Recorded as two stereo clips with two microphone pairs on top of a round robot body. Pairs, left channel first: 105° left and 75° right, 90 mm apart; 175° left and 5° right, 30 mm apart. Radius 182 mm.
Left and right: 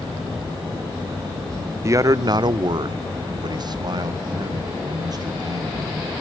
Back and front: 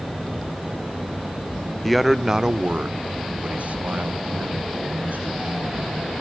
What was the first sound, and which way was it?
A man speaking, 115° right.